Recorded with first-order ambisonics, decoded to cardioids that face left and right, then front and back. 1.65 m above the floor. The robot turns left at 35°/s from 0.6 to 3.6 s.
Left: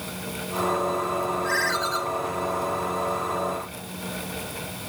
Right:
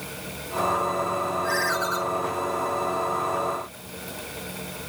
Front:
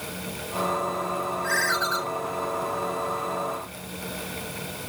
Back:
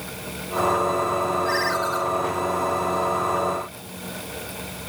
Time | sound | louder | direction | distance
1.4 | a ringtone | left 1 dB, back 1 dB | 10° right | 7.5 m